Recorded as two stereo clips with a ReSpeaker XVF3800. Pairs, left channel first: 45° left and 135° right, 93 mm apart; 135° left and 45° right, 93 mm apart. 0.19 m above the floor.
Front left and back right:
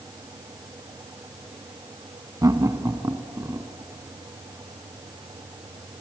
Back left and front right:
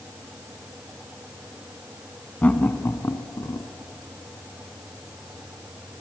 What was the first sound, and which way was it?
Laughter, 155° right.